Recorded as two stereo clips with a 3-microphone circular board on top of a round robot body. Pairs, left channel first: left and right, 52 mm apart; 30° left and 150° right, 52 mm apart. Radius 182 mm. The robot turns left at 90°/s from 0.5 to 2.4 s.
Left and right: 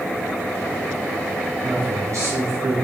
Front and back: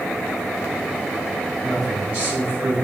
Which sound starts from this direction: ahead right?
A man speaking, at 1.6 s.